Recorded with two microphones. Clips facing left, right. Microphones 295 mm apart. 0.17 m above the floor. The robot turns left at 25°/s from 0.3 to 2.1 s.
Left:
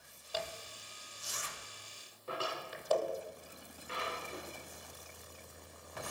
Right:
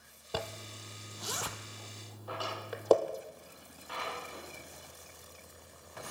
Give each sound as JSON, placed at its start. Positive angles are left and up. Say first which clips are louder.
{"t": 0.3, "sound": "a zipper", "louder": "right 4 dB", "side_deg": -65, "distance_m": 1.0}
{"t": 2.3, "sound": "a drawer", "louder": "right 1 dB", "side_deg": 30, "distance_m": 9.0}